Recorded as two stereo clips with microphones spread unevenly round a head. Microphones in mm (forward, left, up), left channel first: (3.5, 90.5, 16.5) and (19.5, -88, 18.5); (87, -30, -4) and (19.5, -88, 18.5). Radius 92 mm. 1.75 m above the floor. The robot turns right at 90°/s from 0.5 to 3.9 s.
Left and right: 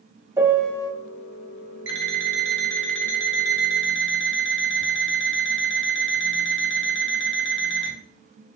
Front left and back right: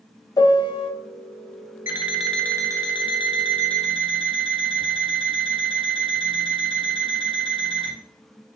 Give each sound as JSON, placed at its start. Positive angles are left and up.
{"t": 0.4, "sound": "a piano", "azimuth_deg": -5, "distance_m": 0.9}
{"t": 1.9, "sound": "an alarm clock", "azimuth_deg": -90, "distance_m": 2.0}